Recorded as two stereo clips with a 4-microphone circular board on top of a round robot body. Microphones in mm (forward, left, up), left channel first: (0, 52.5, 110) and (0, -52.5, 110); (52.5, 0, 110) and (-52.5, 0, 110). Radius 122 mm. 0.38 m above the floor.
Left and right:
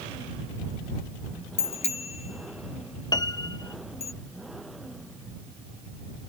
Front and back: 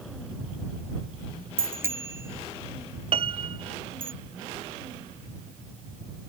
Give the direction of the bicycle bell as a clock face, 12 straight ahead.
8 o'clock.